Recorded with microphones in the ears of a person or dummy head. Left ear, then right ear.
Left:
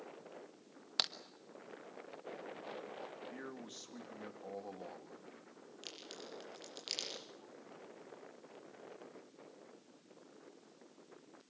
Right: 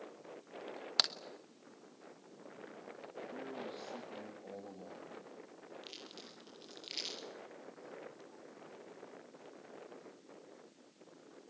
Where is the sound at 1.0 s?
10° right (ahead or behind), 1.4 m.